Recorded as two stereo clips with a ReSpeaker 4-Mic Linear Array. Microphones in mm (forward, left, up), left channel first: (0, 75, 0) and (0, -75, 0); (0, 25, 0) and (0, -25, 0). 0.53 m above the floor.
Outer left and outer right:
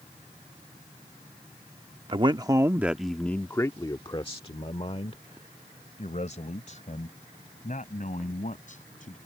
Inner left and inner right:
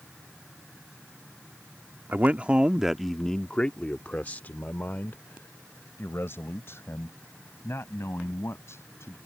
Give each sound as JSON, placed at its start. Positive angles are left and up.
{"t": 2.1, "sound": "a man speaking", "side_deg": -35}